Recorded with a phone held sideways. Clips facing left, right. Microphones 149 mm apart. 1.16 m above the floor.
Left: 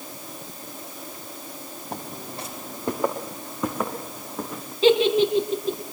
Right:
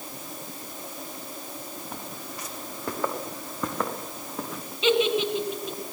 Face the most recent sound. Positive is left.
turn(degrees=35)  # may be behind; listen again after turning